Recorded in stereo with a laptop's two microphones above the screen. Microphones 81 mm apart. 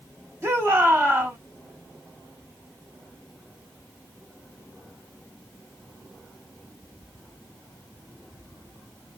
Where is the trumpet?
No trumpet in this recording.